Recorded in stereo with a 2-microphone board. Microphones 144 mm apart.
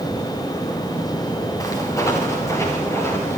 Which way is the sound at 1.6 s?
25° left (ahead or behind).